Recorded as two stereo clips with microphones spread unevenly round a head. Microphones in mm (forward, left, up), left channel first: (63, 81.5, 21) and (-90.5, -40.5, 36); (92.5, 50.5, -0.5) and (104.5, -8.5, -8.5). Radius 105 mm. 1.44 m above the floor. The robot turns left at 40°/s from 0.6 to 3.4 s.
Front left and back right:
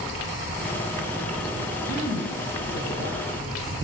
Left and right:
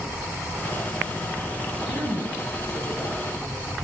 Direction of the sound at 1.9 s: 115° left.